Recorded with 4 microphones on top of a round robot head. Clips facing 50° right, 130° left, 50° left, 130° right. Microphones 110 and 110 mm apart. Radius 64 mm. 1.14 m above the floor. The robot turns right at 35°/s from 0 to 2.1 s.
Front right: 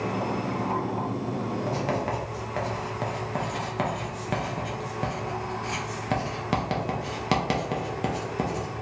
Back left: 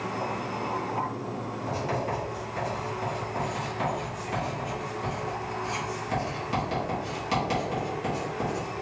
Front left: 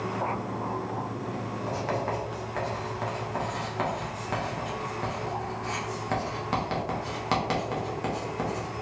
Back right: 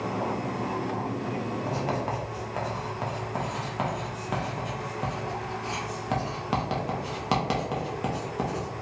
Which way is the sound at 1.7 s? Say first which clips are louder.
Even, front left 2 dB; 70° right.